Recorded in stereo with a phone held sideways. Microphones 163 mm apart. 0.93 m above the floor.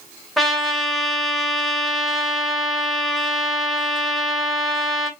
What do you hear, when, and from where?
0.4 s a trumpet: centre (ahead or behind), 1.6 m